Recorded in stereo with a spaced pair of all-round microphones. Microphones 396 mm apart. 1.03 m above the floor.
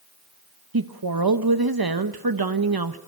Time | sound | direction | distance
0.7 | a woman speaking | 65° right (ahead or behind) | 0.9 m